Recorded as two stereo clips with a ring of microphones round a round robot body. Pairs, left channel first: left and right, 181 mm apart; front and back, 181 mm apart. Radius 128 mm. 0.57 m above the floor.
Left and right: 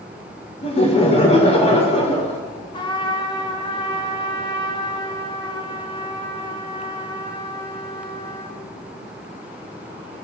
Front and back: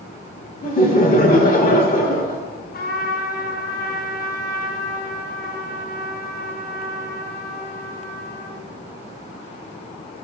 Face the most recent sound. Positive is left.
turn(degrees=30)